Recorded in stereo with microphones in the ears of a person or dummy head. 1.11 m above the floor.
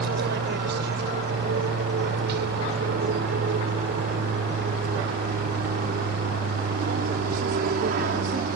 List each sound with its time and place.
0.0 s an aircraft: 65° right (ahead or behind); by 8.6 s 50° right (ahead or behind)